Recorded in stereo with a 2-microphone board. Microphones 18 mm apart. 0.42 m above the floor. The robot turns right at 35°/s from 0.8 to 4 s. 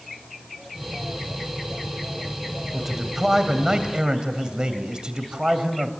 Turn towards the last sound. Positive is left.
turn(degrees=-120)